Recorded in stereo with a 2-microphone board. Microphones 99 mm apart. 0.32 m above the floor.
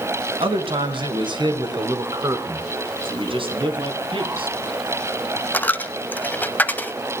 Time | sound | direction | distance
0.4 | a man speaking | 65° right (ahead or behind) | 3 m
3.0 | a man speaking | 60° right (ahead or behind) | 3 m
5.5 | a dropped coin | 20° left (ahead or behind) | 0.8 m